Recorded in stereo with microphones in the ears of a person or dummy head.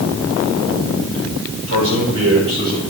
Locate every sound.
1.7 s a man speaking: 70° right (ahead or behind), 5 m